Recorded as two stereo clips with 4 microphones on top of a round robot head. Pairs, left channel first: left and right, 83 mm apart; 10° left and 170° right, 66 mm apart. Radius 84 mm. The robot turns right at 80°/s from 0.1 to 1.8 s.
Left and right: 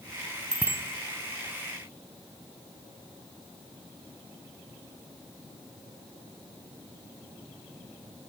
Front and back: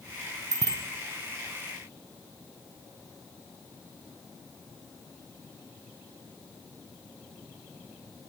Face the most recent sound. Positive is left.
turn(degrees=-65)